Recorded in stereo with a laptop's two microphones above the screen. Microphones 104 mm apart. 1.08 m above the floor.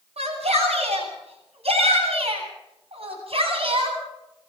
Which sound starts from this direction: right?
A shout, at 0.2 s.